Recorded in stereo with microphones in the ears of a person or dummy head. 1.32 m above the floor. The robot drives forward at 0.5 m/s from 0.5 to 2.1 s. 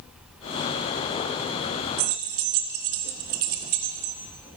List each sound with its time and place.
2.0 s keys jangling: 45° right (ahead or behind), 0.6 m